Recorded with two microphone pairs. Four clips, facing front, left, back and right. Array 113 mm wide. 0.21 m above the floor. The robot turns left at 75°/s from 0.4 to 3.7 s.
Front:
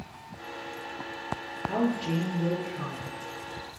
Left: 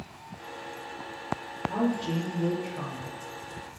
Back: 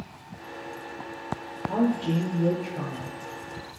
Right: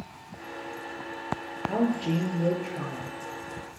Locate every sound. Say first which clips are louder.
1.7 s a woman speaking: right 2 dB, back 3 dB; 55° right, 3.5 m; by 3.1 s 160° right, 3.5 m